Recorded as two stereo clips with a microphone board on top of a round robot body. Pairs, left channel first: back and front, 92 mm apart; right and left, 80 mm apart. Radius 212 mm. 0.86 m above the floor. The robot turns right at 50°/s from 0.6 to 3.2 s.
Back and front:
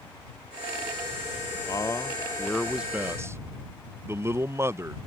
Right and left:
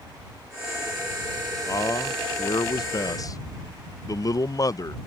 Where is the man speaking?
135° right; by 5.0 s 60° right.